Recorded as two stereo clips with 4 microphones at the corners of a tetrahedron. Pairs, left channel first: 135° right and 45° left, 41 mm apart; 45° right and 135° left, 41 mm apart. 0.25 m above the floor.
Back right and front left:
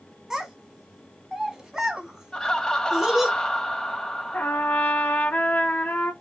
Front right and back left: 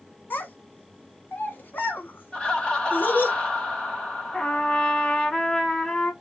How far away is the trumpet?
About 0.9 m.